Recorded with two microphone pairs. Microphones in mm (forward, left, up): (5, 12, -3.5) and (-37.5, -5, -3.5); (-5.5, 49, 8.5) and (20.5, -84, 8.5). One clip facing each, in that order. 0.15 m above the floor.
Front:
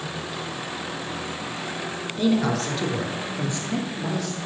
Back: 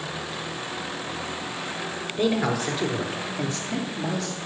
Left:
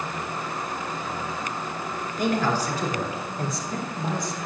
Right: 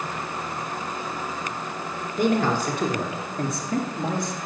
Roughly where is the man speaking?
Right.